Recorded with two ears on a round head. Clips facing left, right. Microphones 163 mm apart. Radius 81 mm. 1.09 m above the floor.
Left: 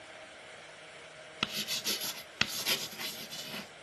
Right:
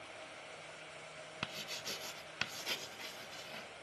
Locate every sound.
1.4 s writing: 70° left (ahead or behind), 0.6 m